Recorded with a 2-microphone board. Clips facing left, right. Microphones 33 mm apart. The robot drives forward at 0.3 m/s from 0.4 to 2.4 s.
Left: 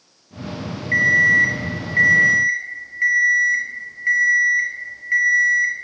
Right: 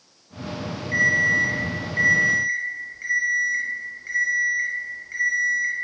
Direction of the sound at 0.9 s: 55° left (ahead or behind).